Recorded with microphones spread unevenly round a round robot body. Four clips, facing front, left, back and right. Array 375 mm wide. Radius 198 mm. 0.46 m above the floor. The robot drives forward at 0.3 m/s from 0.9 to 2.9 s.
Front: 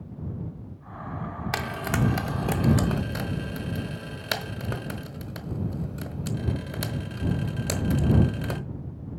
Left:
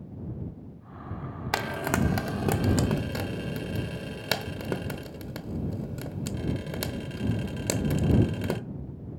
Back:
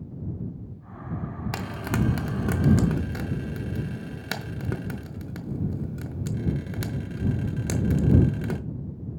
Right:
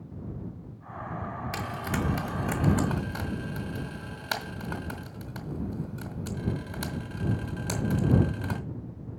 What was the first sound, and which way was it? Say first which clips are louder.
Frying: left 6 dB, front 1 dB; 60° left.